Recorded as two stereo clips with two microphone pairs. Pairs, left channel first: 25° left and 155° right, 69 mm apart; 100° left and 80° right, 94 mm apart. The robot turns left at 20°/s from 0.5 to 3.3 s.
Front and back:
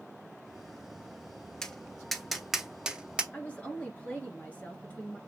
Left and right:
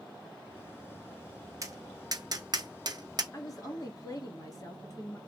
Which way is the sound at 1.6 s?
50° right.